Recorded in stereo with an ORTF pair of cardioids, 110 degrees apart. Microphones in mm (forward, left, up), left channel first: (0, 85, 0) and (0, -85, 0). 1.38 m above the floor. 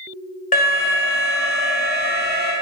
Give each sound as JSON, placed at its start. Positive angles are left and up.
{"t": 0.5, "sound": "an alarm", "azimuth_deg": 50, "distance_m": 0.8}